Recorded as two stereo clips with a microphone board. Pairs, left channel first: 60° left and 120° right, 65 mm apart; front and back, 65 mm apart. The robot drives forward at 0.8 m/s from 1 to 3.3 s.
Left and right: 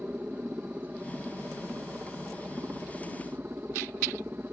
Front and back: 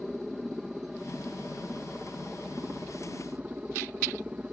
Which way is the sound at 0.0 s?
105° right.